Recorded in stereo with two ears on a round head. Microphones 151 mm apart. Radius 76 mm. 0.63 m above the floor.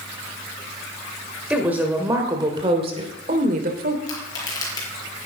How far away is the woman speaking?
About 2.5 m.